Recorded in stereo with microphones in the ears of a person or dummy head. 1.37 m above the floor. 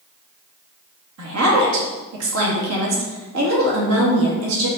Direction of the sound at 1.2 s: 85° right.